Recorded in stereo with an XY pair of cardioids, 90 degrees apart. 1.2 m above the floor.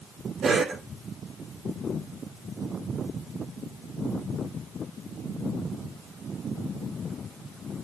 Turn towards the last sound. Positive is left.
turn(degrees=-65)